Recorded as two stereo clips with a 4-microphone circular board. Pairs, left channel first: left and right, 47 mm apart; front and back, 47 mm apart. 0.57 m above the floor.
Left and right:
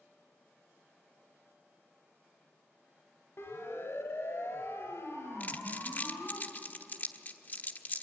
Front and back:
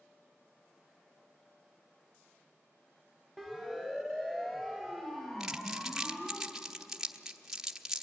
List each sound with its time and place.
3.4 s a siren: 80° left, 3 m; by 6.4 s 65° left, 4.5 m
5.4 s crumpling: 105° left, 1.0 m